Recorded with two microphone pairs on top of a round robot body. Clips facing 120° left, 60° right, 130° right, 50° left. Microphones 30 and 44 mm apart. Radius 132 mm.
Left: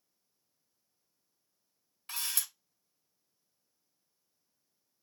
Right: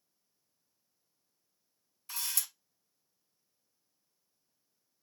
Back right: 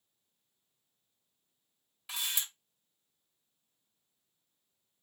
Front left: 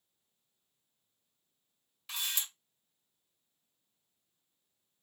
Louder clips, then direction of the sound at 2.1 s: Left 1 dB, back right 1 dB; 145° left.